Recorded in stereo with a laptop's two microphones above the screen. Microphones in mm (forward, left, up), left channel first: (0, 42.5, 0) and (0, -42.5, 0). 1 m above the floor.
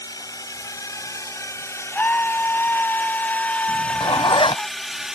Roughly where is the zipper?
Left.